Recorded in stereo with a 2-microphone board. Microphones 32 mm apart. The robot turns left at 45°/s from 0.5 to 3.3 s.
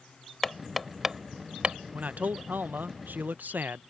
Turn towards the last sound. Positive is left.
turn(degrees=-110)